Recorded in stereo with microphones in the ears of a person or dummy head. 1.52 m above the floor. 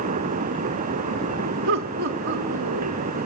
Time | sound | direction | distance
1.7 | laughter | 65° right (ahead or behind) | 0.7 m